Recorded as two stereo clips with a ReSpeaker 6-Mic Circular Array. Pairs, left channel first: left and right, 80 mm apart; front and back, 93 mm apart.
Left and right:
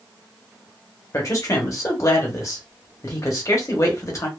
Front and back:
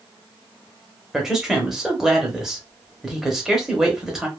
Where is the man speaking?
95° left, 1.1 m.